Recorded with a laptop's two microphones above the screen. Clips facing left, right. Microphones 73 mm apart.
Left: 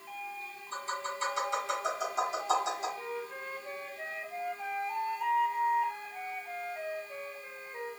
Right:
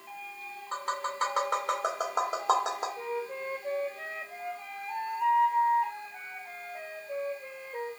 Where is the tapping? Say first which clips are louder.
Right 3 dB; 55° right (ahead or behind), 1.3 m.